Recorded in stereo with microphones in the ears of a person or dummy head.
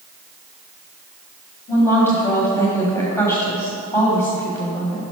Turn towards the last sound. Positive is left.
turn(degrees=15)  # may be behind; listen again after turning